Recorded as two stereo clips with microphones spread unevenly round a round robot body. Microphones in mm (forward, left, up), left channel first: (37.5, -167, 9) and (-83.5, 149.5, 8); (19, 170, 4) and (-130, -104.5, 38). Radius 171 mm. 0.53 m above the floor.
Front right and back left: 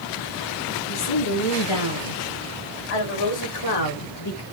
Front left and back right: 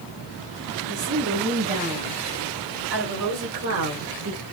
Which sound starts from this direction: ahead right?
A woman speaking, at 0.9 s.